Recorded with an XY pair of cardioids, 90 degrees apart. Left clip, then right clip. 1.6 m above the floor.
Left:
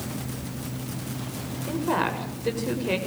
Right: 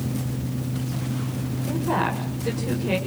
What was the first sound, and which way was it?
A fan, 45° right.